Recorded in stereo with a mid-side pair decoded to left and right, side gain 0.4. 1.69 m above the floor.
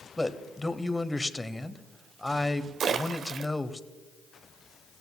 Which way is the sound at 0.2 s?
15° left.